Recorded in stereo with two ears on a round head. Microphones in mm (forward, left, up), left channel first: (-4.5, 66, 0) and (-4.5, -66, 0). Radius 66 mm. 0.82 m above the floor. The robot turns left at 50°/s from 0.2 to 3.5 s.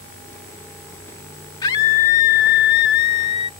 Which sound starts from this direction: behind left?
A scream, at 1.6 s.